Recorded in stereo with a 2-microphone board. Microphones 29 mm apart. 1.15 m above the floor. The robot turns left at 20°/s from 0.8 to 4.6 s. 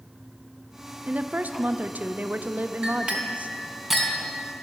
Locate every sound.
1.1 s a woman speaking: 70° right, 0.6 m; by 3.5 s 120° right, 0.6 m
2.8 s a clink: 30° right (ahead or behind), 2.5 m; by 4.2 s centre (ahead or behind), 2.5 m